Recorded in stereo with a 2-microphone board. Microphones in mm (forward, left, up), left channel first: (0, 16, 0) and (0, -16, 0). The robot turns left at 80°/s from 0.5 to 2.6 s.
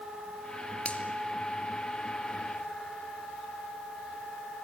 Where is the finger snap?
40° left (ahead or behind), 1.9 m; by 1.0 s 35° left (ahead or behind), 1.9 m.